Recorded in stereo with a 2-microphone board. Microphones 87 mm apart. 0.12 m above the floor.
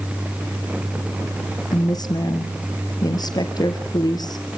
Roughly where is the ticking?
No ticking in this recording.